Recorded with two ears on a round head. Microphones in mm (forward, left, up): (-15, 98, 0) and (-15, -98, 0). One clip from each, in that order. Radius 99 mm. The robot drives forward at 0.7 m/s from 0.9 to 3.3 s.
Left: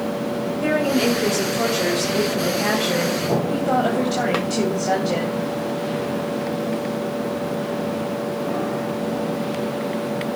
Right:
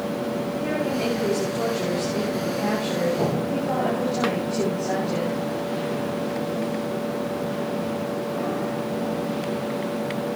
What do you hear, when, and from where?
0.6 s a woman speaking: 65° left (ahead or behind), 3 m; by 5.5 s 60° left (ahead or behind), 3.5 m